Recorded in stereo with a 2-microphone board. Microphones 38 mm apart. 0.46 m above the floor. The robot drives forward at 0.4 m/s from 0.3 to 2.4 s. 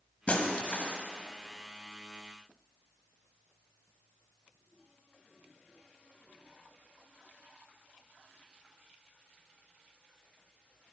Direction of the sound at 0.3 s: 40° left (ahead or behind).